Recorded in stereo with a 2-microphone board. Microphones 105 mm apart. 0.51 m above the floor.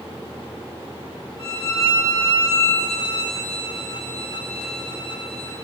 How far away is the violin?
About 3 m.